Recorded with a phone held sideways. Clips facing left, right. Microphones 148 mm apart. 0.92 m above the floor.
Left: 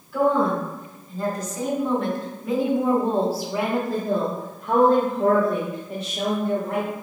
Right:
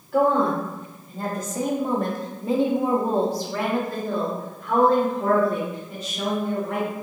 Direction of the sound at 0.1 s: 65° right (ahead or behind).